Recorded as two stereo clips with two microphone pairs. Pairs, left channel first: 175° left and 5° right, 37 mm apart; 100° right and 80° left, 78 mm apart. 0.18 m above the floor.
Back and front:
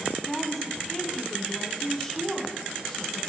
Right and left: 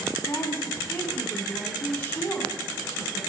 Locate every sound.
0.3 s a woman speaking: 115° right, 1.6 m